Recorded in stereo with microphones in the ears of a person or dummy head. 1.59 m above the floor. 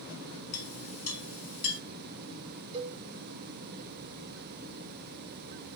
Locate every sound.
0.5 s a clink: 45° left (ahead or behind), 1.7 m
2.7 s a cowbell: 35° right (ahead or behind), 0.8 m